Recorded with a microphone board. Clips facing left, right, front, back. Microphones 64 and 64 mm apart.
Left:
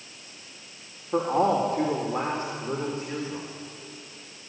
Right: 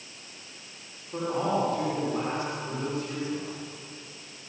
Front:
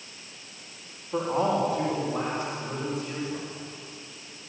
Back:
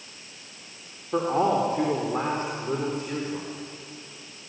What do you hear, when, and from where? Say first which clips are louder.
1.1 s a man speaking: left 5 dB, back 2 dB; 130° left, 3.5 m; by 3.5 s 145° left, 4 m